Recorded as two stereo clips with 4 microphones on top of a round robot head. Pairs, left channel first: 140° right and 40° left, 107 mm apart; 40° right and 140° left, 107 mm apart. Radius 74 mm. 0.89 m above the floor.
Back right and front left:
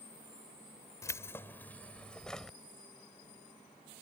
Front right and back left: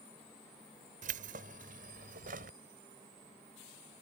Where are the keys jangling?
155° left; by 2.6 s 135° left.